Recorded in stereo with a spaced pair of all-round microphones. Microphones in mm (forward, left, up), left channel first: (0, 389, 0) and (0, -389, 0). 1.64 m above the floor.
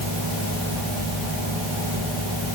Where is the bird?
No bird in this recording.